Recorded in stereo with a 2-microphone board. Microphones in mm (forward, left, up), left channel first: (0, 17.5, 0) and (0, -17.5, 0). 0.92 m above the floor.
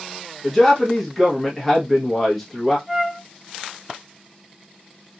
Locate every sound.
0.4 s a man speaking: 5° left (ahead or behind), 0.9 m
2.9 s a flute: 10° right (ahead or behind), 0.8 m